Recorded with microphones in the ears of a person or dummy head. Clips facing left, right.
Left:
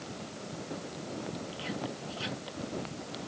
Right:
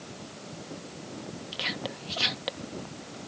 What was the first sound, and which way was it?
Whispering, 75° right (ahead or behind).